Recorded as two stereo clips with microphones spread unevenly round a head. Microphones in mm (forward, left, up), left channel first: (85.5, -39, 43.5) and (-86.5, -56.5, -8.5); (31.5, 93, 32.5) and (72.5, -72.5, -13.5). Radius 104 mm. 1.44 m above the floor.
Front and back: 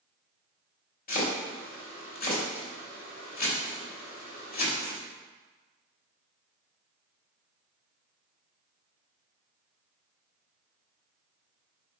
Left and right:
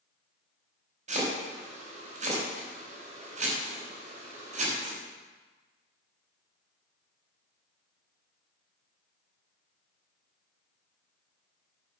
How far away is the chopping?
About 5.5 m.